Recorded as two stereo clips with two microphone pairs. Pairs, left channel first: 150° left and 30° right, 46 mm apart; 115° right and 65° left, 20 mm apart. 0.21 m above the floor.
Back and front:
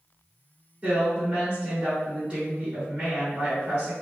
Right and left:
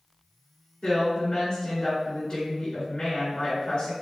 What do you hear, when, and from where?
0.8 s a woman speaking: 90° right, 1.7 m